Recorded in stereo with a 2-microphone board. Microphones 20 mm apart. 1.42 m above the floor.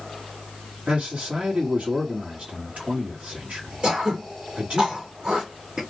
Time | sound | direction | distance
0.9 | a man speaking | 75° right (ahead or behind) | 1.2 m
3.8 | throat clearing | 55° right (ahead or behind) | 1.1 m